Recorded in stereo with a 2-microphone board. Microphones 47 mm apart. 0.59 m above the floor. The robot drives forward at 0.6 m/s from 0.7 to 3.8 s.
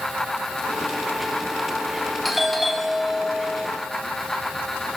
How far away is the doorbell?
About 2.5 m.